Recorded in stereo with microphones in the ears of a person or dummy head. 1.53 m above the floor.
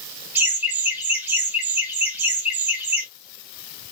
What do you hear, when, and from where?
0.3 s laughter: 5° right (ahead or behind), 2 m